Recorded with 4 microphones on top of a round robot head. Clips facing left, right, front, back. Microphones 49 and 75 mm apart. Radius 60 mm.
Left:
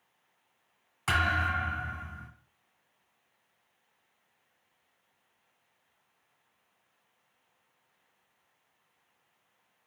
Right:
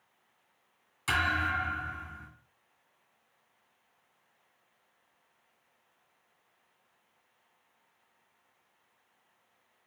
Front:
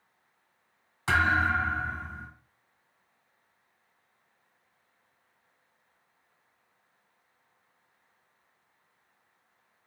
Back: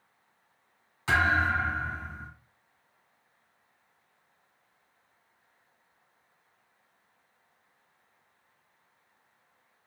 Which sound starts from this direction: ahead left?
A thud, at 1.1 s.